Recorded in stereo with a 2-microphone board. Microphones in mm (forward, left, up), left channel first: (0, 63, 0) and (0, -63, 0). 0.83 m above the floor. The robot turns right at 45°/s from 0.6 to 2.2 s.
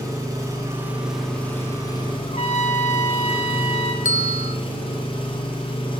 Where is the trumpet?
60° left (ahead or behind), 1.0 m.